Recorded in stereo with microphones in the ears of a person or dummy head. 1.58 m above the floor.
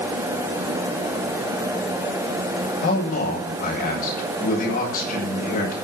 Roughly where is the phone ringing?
I don't hear a phone ringing.